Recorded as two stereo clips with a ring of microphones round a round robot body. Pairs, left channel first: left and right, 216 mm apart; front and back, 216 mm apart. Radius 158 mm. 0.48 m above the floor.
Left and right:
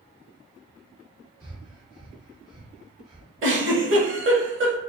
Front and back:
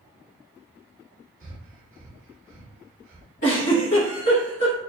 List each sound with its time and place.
1.4 s breathing: 160° right, 1.5 m
3.4 s a giggle: 55° right, 1.1 m